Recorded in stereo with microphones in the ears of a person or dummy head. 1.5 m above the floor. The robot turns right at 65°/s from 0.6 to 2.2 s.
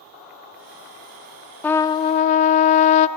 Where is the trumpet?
5° left, 0.5 m; by 3.1 s 45° left, 0.5 m.